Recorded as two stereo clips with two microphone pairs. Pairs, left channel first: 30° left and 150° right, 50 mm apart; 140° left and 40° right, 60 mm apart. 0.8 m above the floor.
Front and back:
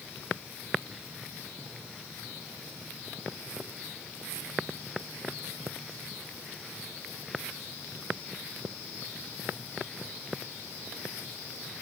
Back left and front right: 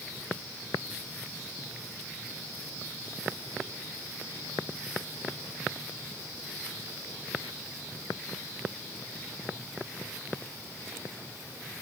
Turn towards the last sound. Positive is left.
No sound to turn to.